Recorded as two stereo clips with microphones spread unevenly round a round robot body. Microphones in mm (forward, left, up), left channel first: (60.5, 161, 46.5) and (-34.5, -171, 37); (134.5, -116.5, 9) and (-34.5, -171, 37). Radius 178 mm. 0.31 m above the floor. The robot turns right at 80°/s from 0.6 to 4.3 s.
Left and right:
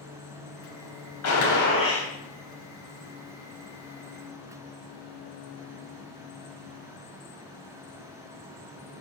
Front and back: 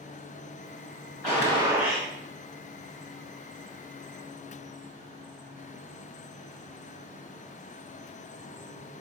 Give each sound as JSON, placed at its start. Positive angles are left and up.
{"t": 1.2, "sound": "a gunshot", "azimuth_deg": 100, "distance_m": 2.5}